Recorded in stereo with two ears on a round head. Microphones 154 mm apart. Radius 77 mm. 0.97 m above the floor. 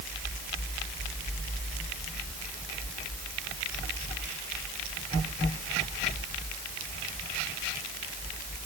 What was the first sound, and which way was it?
Only background noise.